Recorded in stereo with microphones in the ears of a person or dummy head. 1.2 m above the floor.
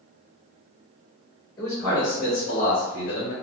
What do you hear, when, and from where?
1.6 s a man speaking: 20° left (ahead or behind), 1.5 m; by 3.3 s 55° left (ahead or behind), 0.8 m